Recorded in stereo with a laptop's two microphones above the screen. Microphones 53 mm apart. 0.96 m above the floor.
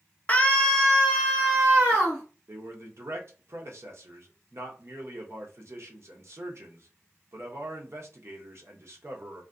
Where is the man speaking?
55° right (ahead or behind), 0.7 m.